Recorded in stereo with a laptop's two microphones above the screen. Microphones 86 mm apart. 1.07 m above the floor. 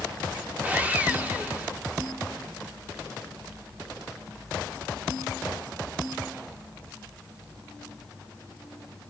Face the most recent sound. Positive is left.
turn(degrees=-20)  # may be behind; listen again after turning